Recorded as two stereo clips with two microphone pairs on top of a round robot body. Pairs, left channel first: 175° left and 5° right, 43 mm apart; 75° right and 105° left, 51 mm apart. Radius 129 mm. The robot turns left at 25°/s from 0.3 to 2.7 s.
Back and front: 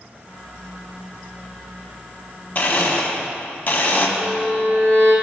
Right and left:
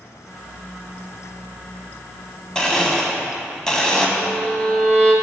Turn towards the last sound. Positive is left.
turn(degrees=-30)